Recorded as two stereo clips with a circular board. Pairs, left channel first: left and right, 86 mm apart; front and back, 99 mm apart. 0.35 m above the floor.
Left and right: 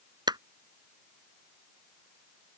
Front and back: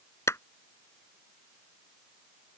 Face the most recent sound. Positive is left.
turn(degrees=-60)